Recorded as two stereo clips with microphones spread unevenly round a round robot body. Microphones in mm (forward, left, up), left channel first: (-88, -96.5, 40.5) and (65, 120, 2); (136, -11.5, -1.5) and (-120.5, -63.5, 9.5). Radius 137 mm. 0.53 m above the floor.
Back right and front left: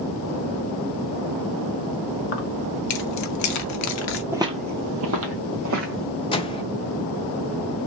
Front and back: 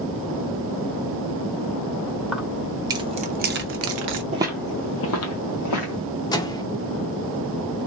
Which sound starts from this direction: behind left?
Footsteps, at 4.3 s.